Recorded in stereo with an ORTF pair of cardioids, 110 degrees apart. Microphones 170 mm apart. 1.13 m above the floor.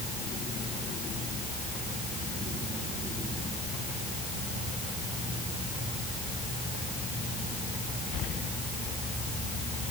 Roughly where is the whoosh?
I don't hear a whoosh.